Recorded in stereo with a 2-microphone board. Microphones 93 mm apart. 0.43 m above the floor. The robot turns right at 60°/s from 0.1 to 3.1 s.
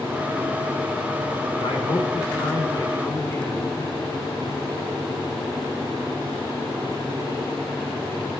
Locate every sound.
1.6 s a man speaking: 60° left, 4 m; by 3.9 s 155° left, 4 m